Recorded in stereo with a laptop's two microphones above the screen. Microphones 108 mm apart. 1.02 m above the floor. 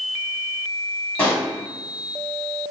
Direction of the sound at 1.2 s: 15° left (ahead or behind).